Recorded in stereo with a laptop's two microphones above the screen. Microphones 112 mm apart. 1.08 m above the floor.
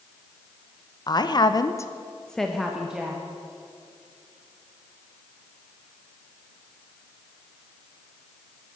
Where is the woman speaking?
40° left (ahead or behind), 1.0 m; by 3.2 s 10° right (ahead or behind), 1.9 m.